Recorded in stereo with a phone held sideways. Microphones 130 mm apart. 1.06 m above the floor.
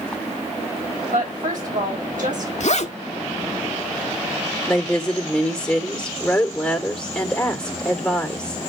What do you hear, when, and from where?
1.1 s a woman speaking: 85° right, 5.5 m
2.6 s a zipper: 60° left (ahead or behind), 1.3 m
4.7 s a woman speaking: 5° left (ahead or behind), 3 m